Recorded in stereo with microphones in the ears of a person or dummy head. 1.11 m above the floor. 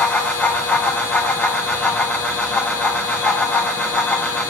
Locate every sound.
0.0 s a fan: 10° left (ahead or behind), 1.5 m